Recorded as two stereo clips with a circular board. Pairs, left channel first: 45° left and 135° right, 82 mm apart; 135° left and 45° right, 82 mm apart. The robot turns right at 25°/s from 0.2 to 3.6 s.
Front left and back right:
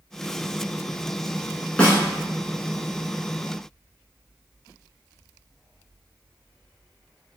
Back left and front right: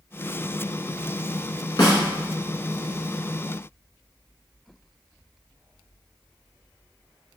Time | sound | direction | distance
1.8 | a snare drum | 120° left | 1.0 m